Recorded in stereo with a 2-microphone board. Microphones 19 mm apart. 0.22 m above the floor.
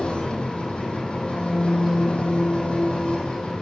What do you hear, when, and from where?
0.0 s an engine running: 75° left (ahead or behind), 3.5 m